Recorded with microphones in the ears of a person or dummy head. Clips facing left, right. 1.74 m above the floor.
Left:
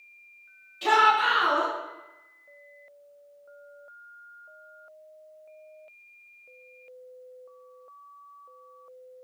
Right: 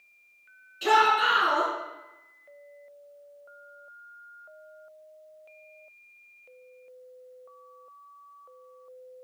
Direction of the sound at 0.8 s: 10° left (ahead or behind).